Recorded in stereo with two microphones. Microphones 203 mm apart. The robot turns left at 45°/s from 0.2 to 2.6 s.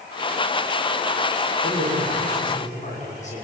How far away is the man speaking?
About 6.5 m.